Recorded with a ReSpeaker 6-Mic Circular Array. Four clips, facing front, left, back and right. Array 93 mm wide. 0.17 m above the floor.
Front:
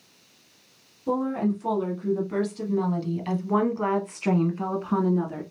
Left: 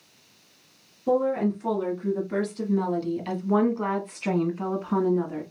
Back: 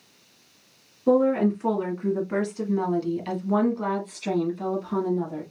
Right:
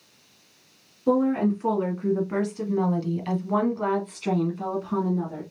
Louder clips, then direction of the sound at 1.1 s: Right 2 dB, back 6 dB; 145° right.